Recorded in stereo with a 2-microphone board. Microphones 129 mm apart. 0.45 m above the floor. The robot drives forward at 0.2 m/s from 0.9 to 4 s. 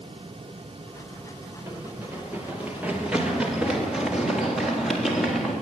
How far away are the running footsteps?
About 5.5 m.